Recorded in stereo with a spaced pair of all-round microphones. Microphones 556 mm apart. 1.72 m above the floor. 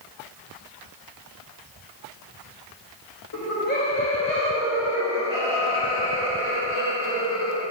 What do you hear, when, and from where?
3.3 s laughter: 35° left (ahead or behind), 1.2 m; by 7.6 s 15° right (ahead or behind), 7 m